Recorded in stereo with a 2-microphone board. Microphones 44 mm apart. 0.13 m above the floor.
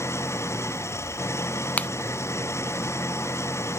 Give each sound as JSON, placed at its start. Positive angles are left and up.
{"t": 0.0, "sound": "an engine running", "side_deg": 80}
{"t": 1.8, "sound": "a finger snap", "side_deg": 35}